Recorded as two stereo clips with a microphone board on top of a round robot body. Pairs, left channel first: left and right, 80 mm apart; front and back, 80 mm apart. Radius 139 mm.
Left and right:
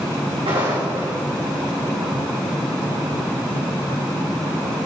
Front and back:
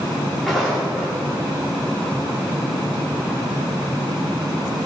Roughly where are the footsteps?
Right.